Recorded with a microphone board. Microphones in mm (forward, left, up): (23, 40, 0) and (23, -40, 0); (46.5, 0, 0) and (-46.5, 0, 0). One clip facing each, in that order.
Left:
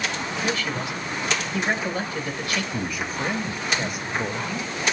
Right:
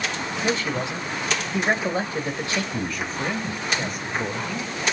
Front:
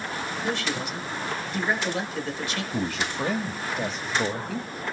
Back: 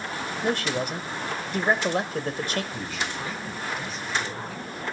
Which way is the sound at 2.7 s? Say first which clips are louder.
Even, front 4 dB; 5° left.